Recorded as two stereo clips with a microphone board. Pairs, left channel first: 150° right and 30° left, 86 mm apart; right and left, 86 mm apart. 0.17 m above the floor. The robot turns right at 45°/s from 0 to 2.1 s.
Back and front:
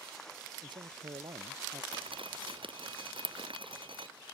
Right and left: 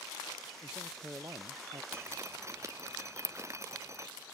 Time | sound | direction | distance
0.6 | a man speaking | 5° left | ?
1.9 | dripping | 25° left | ?